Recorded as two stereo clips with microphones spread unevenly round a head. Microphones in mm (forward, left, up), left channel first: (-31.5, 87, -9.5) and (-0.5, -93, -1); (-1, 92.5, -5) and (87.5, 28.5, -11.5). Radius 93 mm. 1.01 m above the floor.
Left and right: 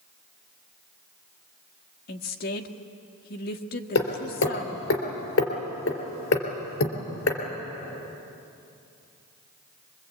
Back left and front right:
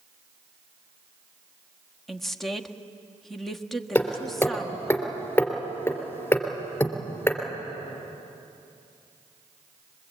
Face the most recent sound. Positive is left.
turn(degrees=70)